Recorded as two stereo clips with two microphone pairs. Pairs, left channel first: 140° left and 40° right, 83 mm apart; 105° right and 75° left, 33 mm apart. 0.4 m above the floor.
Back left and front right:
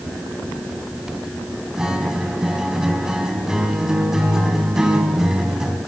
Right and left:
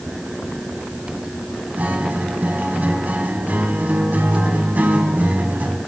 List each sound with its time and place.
1.8 s a guitar: 45° left, 3.5 m